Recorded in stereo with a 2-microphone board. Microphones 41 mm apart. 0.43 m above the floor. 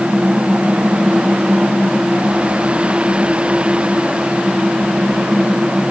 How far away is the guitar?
No guitar in this recording.